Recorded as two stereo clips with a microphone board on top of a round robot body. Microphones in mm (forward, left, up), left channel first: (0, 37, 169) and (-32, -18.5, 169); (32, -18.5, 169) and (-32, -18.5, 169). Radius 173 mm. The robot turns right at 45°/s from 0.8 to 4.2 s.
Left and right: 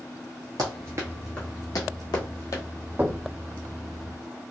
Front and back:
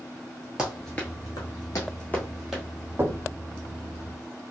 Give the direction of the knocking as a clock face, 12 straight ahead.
5 o'clock.